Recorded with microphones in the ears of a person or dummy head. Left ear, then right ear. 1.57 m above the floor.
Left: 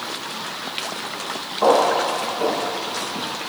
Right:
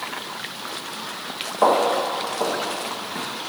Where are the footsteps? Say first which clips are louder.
Left 2 dB; 30° right (ahead or behind), 3 m.